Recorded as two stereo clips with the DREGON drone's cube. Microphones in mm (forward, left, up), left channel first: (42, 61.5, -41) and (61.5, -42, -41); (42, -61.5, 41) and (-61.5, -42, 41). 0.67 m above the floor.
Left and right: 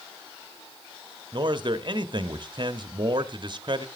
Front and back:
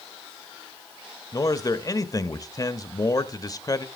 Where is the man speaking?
55° right, 0.9 m.